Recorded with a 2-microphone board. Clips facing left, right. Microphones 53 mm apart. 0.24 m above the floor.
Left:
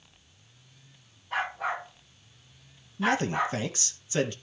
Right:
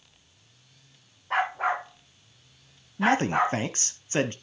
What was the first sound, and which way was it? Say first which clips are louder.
A dog barking: right 5 dB; 70° right (ahead or behind).